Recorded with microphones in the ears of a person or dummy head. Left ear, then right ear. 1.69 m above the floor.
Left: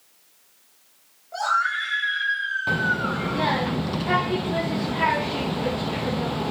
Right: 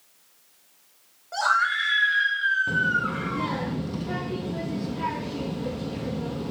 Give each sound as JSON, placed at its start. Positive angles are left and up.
{"t": 1.3, "sound": "a scream", "side_deg": -70, "distance_m": 3.0}
{"t": 2.7, "sound": "a child speaking", "side_deg": 20, "distance_m": 0.5}